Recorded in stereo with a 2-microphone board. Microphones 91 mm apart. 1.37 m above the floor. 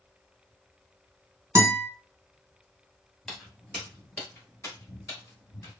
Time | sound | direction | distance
1.6 | a guitar | 30° right (ahead or behind) | 1.5 m
3.2 | footsteps | 5° left (ahead or behind) | 1.6 m